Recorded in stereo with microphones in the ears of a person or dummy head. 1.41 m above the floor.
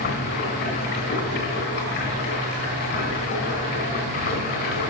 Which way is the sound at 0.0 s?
55° left (ahead or behind).